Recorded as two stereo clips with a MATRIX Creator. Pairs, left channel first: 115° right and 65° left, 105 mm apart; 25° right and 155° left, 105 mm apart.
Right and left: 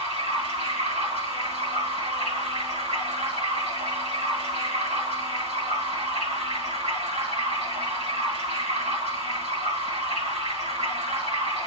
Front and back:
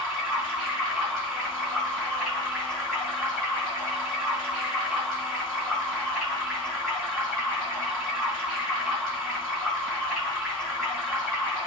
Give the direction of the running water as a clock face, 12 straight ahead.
10 o'clock.